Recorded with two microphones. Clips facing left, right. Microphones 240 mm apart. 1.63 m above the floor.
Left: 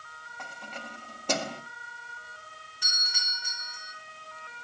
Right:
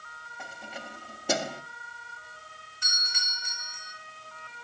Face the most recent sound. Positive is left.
turn(degrees=85)